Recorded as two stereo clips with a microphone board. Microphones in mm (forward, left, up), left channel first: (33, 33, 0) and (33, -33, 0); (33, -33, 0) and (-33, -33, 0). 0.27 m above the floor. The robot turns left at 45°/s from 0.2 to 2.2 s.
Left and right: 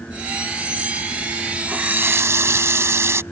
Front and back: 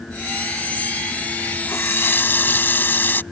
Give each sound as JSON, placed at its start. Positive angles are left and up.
{"t": 1.7, "sound": "a running tap", "azimuth_deg": -30}